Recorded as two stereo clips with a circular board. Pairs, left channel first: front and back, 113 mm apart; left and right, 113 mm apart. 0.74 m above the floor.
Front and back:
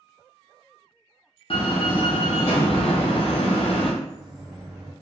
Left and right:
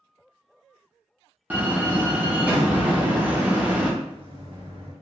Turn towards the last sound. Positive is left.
turn(degrees=-95)